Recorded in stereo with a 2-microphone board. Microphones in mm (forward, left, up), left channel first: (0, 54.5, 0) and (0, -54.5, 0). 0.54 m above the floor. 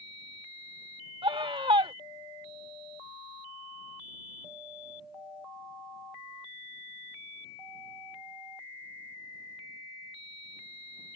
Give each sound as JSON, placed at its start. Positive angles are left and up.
{"t": 1.2, "sound": "a scream", "side_deg": -50}